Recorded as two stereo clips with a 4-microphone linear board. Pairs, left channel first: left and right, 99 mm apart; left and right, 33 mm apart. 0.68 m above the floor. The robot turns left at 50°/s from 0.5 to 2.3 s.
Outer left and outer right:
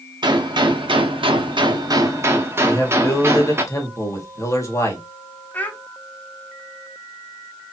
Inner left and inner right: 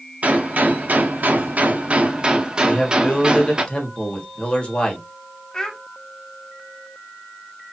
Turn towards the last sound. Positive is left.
turn(degrees=20)  # may be behind; listen again after turning